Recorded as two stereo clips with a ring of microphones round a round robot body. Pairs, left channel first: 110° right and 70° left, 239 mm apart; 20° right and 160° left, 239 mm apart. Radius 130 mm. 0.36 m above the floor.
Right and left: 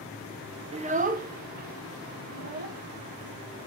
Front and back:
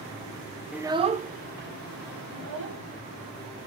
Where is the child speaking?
75° left, 0.5 m; by 2.8 s 120° left, 1.8 m.